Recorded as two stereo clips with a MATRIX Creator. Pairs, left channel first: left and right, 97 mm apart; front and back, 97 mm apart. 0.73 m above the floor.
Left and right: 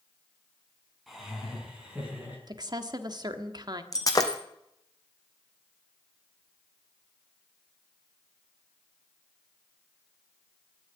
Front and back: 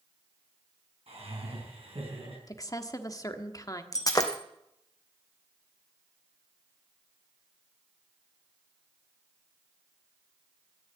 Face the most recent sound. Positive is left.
turn(degrees=45)